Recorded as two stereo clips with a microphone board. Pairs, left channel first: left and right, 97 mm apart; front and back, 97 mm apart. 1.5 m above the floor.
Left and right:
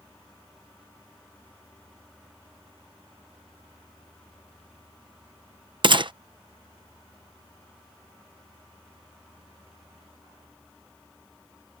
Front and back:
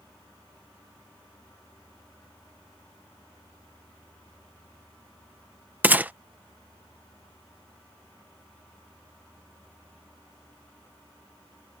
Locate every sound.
5.8 s a gunshot: 110° right